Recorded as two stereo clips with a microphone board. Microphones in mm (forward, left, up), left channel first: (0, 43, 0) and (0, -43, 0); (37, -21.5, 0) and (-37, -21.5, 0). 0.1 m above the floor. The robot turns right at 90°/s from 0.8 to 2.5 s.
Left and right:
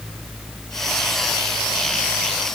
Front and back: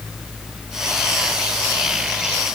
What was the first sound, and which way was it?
Only background noise.